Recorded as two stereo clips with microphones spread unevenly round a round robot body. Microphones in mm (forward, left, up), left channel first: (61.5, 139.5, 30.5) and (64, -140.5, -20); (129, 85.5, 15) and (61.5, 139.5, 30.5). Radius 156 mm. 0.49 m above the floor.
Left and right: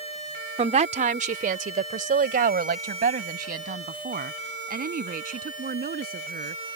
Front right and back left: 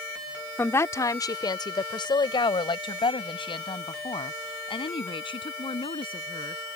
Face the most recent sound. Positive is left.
turn(degrees=-30)